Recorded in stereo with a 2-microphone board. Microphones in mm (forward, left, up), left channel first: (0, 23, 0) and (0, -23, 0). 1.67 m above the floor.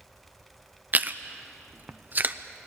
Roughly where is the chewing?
Right.